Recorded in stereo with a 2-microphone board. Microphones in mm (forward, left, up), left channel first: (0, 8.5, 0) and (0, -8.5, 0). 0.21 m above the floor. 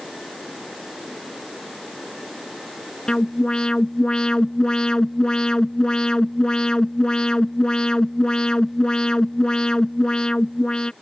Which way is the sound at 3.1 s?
55° left (ahead or behind).